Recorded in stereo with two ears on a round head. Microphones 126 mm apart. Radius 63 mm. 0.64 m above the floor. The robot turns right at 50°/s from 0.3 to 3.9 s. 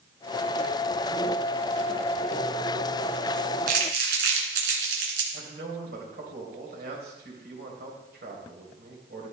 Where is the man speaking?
75° right (ahead or behind), 3 m.